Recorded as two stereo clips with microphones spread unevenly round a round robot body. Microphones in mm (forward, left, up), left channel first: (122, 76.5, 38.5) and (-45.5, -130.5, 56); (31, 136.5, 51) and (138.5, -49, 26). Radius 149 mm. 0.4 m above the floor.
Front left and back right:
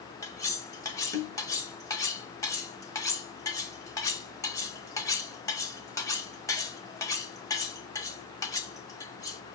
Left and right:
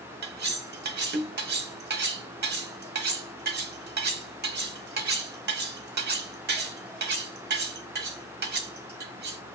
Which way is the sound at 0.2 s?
25° right.